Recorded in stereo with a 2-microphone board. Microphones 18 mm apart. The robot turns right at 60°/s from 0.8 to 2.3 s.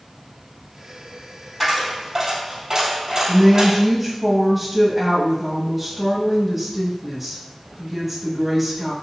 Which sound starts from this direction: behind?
A dropped coin, at 1.6 s.